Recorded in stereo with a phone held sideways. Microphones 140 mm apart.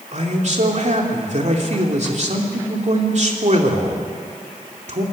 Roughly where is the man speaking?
Right.